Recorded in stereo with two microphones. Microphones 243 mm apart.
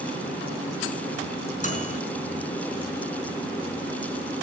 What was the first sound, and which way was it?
A microwave, 30° left (ahead or behind).